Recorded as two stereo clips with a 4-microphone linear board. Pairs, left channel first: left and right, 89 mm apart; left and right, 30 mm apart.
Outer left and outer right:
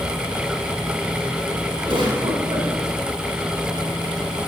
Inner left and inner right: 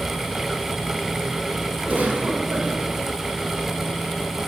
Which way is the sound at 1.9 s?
65° right (ahead or behind).